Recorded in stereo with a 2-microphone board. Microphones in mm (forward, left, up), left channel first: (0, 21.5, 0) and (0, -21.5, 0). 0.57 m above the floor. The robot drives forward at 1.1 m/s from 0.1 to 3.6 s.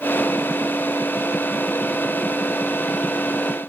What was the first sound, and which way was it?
Only background noise.